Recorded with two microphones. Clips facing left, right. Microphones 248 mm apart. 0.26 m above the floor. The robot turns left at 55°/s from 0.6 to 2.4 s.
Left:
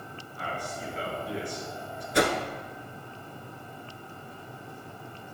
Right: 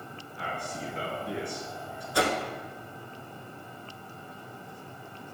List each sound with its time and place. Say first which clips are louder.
0.4 s a man speaking: even; 25° right, 4.5 m; by 2.0 s 105° right, 4.5 m
2.1 s a whoosh: left 3 dB; 25° left (ahead or behind), 1.1 m; by 2.4 s 10° left (ahead or behind), 1.1 m